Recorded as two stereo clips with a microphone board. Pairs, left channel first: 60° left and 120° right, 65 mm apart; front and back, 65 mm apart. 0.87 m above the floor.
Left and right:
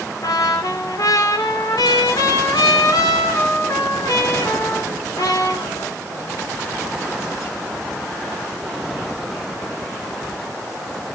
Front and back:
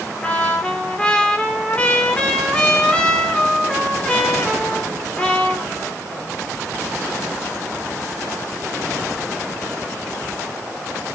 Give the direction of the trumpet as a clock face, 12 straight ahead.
10 o'clock.